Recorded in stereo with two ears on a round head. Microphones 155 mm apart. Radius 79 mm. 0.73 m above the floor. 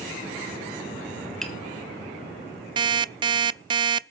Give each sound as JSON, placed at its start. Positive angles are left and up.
{"t": 1.4, "sound": "tapping", "side_deg": 5, "distance_m": 1.9}
{"t": 2.8, "sound": "an alarm clock", "side_deg": -25, "distance_m": 0.6}